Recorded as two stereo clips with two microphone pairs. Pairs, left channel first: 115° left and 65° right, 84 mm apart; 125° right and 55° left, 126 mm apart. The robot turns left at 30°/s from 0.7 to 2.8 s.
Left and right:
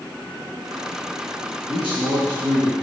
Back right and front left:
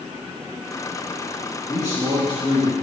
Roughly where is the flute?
No flute in this recording.